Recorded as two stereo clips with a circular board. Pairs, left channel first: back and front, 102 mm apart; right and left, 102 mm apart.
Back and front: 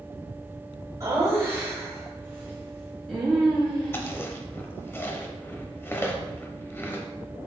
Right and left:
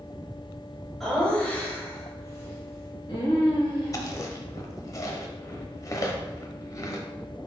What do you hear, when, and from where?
1.0 s laughter: straight ahead, 1.1 m; by 4.1 s 95° right, 1.7 m
3.9 s chewing: 125° right, 0.6 m